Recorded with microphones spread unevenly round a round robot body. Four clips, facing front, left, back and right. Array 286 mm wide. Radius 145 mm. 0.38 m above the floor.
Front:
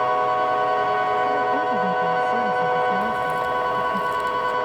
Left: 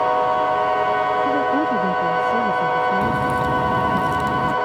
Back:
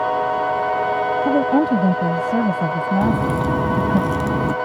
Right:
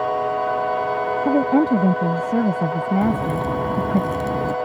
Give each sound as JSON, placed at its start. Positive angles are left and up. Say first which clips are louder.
{"t": 1.2, "sound": "a woman speaking", "louder": "right 2 dB, back 4 dB", "azimuth_deg": -135}
{"t": 3.0, "sound": "a crack", "louder": "left 1 dB, back 3 dB", "azimuth_deg": 175}